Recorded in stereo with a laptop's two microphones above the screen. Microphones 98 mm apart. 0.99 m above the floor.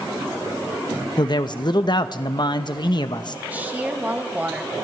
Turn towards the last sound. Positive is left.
turn(degrees=-20)  # may be behind; listen again after turning